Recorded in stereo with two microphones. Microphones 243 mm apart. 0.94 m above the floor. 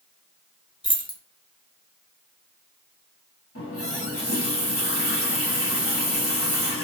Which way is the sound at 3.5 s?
65° left (ahead or behind).